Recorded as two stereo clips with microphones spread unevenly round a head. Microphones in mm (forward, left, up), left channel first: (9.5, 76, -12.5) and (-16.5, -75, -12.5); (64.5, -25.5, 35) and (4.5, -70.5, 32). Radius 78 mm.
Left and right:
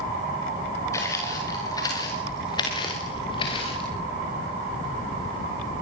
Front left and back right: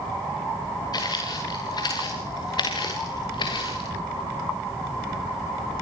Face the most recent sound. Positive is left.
turn(degrees=20)